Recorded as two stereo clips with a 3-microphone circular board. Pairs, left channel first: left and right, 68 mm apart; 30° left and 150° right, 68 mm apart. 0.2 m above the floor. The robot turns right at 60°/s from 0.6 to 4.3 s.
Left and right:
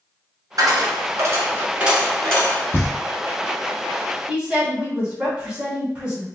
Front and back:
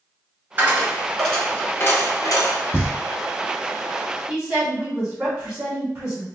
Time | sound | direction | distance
0.6 | a dropped coin | 95° right | 1.1 m
2.7 | knocking | 65° left | 0.9 m
4.3 | a woman speaking | 105° right | 1.1 m